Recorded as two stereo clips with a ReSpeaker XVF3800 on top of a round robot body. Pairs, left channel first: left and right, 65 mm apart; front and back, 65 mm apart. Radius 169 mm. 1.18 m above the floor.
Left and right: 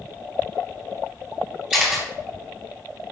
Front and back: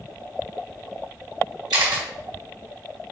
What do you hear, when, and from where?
1.7 s a camera shutter: 165° right, 1.4 m